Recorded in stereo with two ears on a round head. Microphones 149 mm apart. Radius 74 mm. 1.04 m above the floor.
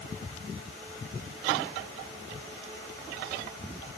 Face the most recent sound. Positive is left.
No sound to turn to.